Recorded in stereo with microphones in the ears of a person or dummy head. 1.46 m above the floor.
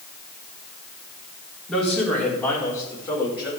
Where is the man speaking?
Centre (ahead or behind), 4.5 m; by 3.5 s 20° left (ahead or behind), 6 m.